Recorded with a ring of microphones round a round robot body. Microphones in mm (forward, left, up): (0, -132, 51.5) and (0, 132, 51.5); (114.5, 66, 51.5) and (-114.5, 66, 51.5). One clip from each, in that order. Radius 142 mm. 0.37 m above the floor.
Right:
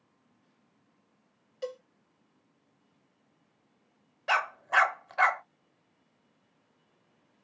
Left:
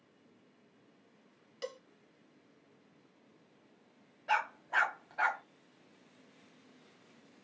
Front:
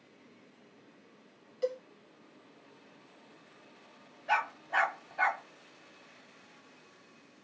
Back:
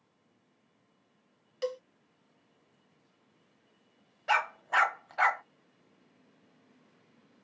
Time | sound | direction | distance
1.6 | a cowbell | 155° left | 1.4 m
4.3 | a dog barking | 130° right | 0.8 m